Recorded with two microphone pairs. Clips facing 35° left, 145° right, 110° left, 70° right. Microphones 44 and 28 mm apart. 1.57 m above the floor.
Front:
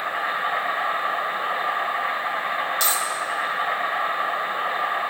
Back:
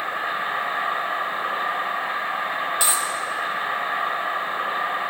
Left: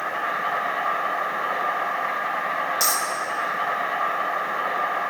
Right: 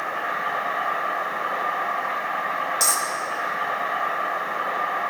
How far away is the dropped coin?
About 0.8 m.